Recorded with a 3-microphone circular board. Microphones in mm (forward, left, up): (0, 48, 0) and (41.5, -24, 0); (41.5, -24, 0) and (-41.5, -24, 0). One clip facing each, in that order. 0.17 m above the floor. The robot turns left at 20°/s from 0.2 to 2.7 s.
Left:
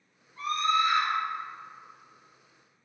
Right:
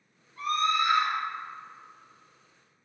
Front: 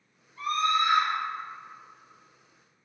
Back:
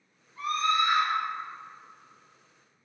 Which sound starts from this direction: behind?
A scream, at 0.4 s.